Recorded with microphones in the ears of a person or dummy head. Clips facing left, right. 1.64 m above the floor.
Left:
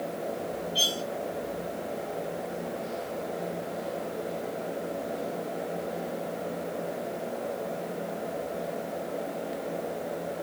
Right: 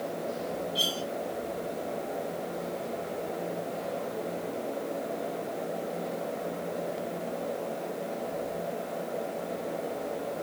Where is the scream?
No scream in this recording.